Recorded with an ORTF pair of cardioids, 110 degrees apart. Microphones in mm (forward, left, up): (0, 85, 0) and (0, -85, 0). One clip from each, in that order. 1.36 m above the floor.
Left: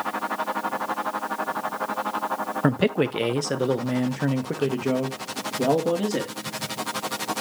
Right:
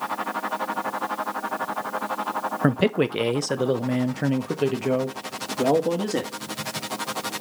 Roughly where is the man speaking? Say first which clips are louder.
Even; ahead.